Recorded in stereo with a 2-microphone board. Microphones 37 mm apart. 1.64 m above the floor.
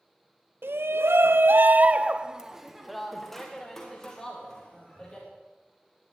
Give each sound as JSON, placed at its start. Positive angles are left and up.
{"t": 0.6, "sound": "a shout", "side_deg": -75, "distance_m": 1.1}